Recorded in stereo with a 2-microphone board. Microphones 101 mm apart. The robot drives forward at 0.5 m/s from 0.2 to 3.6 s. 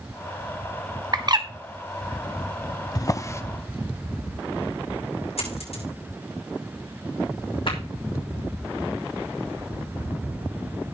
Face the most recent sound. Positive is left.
turn(degrees=60)  # may be behind; listen again after turning